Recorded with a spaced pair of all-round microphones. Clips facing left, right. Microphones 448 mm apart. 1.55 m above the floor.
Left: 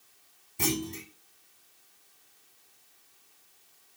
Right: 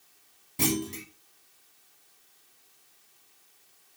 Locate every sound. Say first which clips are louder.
0.6 s a clunk: right 3 dB; 85° right, 1.9 m